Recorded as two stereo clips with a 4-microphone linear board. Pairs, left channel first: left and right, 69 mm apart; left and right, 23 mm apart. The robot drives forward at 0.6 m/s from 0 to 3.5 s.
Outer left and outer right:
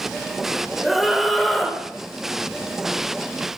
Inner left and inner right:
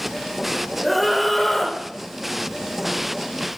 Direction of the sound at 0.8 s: Centre (ahead or behind).